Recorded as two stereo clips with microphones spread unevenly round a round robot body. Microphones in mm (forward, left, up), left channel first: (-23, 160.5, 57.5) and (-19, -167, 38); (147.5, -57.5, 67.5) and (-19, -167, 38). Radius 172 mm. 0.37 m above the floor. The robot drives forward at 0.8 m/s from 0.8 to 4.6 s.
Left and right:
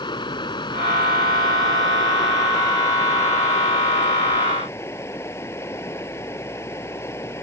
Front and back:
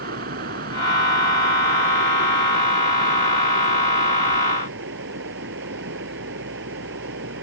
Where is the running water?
165° left; by 7.4 s 170° left.